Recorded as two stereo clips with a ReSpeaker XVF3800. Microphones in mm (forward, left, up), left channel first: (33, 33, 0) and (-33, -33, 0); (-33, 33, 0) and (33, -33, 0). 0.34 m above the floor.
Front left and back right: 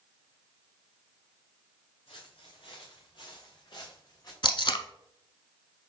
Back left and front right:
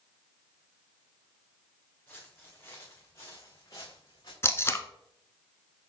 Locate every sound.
2.1 s footsteps: 60° left, 2.5 m; by 4.3 s 90° left, 2.5 m
4.4 s tape being pulled: 75° left, 0.7 m